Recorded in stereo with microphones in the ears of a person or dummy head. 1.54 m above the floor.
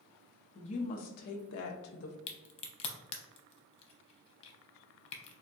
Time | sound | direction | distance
0.6 | a woman speaking | 35° left (ahead or behind) | 0.8 m
2.3 | a crack | 40° left (ahead or behind) | 0.6 m